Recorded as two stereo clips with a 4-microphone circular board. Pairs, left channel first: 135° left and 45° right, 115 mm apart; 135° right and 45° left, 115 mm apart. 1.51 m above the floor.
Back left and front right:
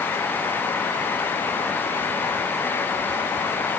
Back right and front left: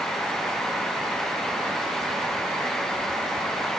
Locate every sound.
Only background noise.